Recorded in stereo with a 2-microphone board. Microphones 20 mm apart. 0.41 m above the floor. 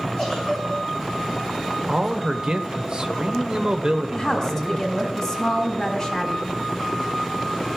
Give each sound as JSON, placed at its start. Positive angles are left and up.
{"t": 0.2, "sound": "a giggle", "side_deg": 20, "distance_m": 6.5}
{"t": 1.9, "sound": "a man speaking", "side_deg": -40, "distance_m": 1.1}
{"t": 4.1, "sound": "a woman speaking", "side_deg": 20, "distance_m": 2.5}